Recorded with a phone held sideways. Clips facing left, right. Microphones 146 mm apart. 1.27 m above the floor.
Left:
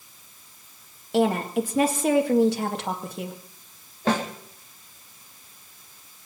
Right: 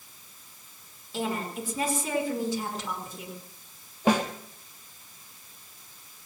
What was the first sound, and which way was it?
A woman speaking, 85° left.